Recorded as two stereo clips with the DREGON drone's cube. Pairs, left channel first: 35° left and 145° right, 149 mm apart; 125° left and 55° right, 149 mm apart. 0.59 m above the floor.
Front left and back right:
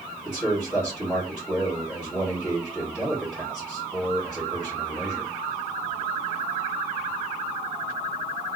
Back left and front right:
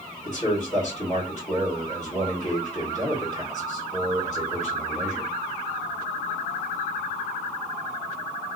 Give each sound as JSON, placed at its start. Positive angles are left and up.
{"t": 0.2, "sound": "a man speaking", "azimuth_deg": 115, "distance_m": 1.7}